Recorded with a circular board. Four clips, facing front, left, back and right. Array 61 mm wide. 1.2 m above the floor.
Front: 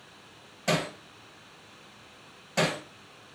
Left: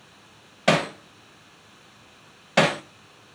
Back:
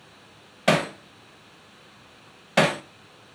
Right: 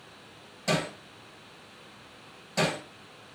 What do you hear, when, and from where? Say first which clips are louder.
0.7 s hammering: left 8 dB, back 7 dB; 135° left, 0.5 m